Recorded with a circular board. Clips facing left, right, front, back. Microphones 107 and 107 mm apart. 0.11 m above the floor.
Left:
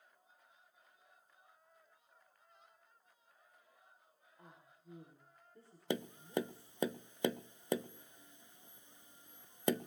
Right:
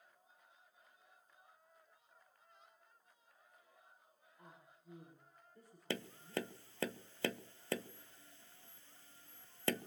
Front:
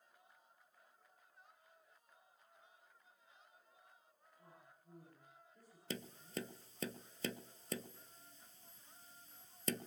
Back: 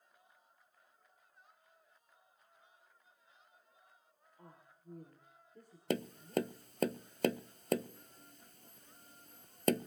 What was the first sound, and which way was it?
A woman speaking, 155° left.